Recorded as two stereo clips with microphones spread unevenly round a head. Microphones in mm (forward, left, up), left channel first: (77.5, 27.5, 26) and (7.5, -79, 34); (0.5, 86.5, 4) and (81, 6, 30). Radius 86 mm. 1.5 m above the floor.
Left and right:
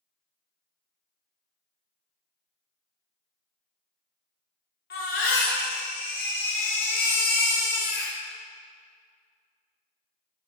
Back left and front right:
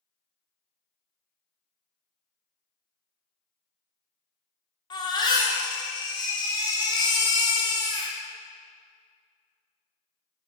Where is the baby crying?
80° left, 2.5 m.